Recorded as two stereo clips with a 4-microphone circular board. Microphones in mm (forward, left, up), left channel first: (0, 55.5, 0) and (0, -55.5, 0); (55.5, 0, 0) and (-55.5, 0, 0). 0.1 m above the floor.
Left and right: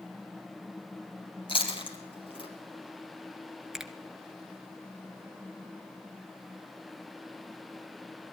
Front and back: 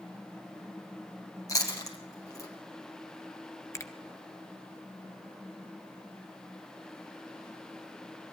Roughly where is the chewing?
Ahead left.